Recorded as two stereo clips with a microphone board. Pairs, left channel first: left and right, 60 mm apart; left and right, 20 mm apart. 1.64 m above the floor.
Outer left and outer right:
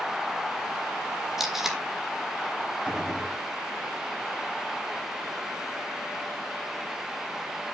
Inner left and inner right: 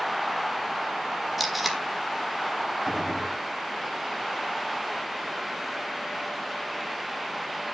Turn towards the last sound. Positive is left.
turn(degrees=-15)  # may be behind; listen again after turning